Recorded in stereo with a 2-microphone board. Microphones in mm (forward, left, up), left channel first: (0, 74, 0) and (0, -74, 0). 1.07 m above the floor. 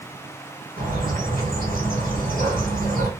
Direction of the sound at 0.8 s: 65° right (ahead or behind).